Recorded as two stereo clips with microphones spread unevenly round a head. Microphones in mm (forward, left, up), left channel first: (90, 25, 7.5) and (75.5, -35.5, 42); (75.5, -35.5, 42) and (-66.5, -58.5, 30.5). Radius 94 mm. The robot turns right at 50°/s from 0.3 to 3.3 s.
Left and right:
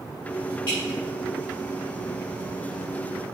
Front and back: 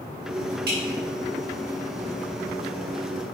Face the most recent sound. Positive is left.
turn(degrees=-75)